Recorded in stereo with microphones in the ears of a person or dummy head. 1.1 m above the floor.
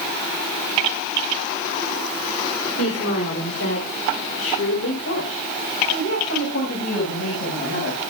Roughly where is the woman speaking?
Left.